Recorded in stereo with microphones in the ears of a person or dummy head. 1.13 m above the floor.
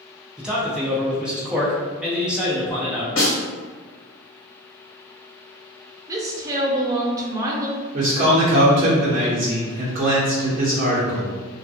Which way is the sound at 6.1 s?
20° right (ahead or behind).